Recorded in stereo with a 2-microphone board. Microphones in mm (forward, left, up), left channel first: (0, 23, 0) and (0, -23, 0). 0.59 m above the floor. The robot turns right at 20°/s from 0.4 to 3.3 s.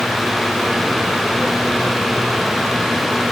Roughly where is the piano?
I don't hear a piano.